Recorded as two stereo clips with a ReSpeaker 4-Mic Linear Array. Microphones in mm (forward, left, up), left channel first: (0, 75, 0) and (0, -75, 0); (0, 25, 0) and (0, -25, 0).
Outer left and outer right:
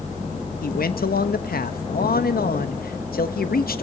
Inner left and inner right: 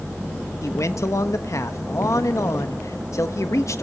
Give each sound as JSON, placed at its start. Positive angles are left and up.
{"t": 0.6, "sound": "a man speaking", "side_deg": 85, "distance_m": 1.1}